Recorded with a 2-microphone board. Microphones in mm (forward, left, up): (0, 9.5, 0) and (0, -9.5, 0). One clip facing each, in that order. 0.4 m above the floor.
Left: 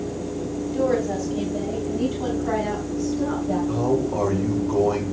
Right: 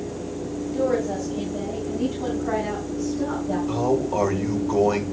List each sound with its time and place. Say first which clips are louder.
0.7 s a woman speaking: left 1 dB; 10° left (ahead or behind), 2.5 m; by 3.6 s 20° left (ahead or behind), 4.5 m
3.7 s a man speaking: right 2 dB; 50° right (ahead or behind), 1.7 m